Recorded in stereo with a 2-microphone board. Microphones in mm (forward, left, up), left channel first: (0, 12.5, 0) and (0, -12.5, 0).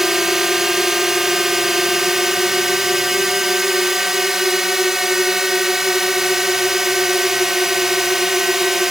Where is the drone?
15° right (ahead or behind).